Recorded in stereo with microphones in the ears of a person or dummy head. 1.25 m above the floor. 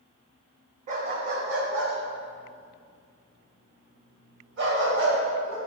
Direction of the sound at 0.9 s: 50° right (ahead or behind).